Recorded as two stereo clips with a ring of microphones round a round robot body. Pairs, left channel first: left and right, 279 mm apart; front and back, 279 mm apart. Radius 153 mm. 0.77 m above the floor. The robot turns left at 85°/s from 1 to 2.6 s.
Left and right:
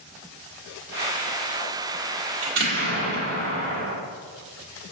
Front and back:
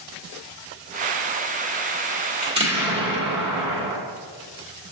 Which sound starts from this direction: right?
An explosion, at 2.4 s.